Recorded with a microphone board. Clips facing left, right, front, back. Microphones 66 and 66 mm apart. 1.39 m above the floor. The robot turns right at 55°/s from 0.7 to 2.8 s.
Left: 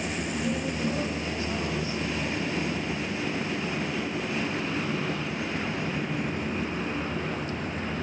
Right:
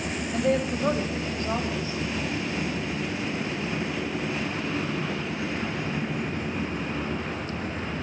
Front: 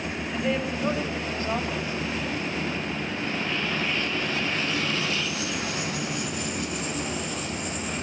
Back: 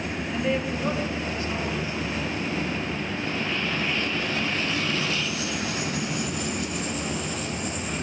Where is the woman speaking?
90° right, 6 m; by 2.0 s 20° right, 6 m.